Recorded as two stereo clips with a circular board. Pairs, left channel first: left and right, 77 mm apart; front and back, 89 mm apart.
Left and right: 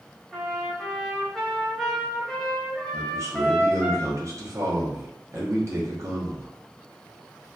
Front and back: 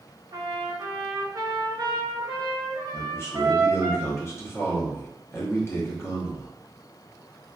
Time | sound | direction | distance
0.3 | a trumpet | 175° left | 0.6 m
2.9 | a man speaking | 55° right | 0.8 m